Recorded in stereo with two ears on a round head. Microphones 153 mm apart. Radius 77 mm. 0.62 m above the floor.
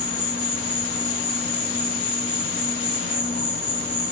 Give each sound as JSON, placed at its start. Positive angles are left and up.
{"t": 0.0, "sound": "an insect", "side_deg": 70, "distance_m": 9.0}